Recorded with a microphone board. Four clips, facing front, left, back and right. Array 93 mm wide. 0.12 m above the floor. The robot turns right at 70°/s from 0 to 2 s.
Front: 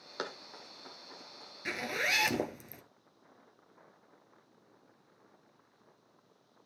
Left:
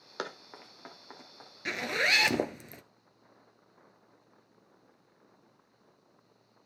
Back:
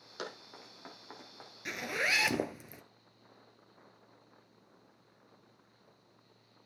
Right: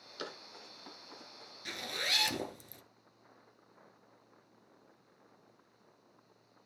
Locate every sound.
0.2 s running footsteps: 65° left, 3 m; by 1.5 s 155° left, 4.5 m
1.6 s a zipper: 70° left, 0.8 m; by 2.8 s 95° left, 0.8 m